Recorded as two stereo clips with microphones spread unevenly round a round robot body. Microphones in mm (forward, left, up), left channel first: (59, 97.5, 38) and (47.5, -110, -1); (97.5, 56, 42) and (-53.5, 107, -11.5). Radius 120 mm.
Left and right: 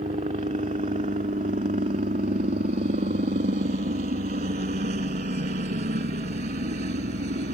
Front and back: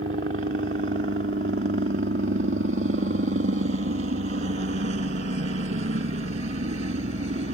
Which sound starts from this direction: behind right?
A helicopter, at 0.0 s.